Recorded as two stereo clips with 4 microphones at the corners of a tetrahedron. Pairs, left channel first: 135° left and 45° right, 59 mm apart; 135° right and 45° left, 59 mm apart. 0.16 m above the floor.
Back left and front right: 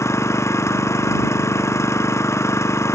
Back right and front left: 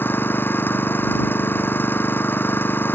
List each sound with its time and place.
0.0 s an engine running: 170° left